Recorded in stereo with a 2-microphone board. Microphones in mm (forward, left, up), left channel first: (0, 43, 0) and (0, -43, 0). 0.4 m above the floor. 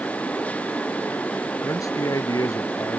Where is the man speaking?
40° left (ahead or behind).